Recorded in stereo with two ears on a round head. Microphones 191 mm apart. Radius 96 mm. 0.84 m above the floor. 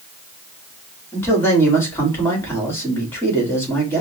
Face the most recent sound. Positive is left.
turn(degrees=10)  # may be behind; listen again after turning